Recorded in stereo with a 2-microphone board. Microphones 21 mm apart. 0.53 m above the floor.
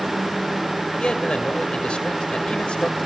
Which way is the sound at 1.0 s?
60° left (ahead or behind).